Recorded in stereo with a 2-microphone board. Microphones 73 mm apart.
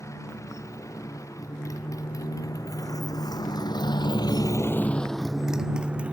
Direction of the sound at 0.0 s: 45° left (ahead or behind).